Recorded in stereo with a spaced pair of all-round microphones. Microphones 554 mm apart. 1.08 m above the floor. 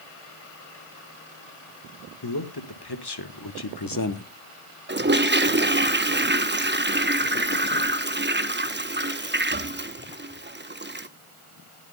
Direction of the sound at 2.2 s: 40° left (ahead or behind).